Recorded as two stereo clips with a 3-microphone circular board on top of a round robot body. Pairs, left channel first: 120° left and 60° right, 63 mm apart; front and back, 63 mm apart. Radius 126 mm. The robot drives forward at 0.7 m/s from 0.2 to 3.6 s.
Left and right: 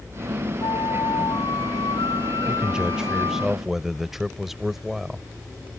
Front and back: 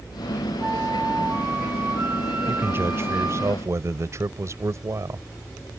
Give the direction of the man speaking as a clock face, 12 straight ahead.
4 o'clock.